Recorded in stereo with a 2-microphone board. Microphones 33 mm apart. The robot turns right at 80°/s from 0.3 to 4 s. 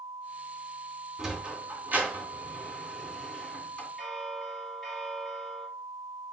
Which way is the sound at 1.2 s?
15° right (ahead or behind).